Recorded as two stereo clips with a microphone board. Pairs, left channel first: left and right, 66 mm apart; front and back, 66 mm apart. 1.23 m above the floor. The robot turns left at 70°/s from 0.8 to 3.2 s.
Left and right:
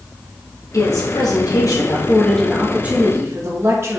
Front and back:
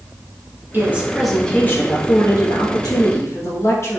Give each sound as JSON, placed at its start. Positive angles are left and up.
{"t": 0.7, "sound": "a woman speaking", "azimuth_deg": 125, "distance_m": 2.0}